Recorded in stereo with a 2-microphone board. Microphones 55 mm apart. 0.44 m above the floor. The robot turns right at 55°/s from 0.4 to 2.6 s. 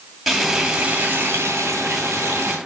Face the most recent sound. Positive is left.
turn(degrees=-60)